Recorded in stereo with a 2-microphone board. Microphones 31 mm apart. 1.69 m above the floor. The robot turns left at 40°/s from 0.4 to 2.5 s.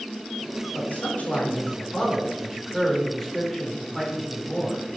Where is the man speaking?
80° left, 5.5 m; by 4.9 s 10° left, 5.5 m.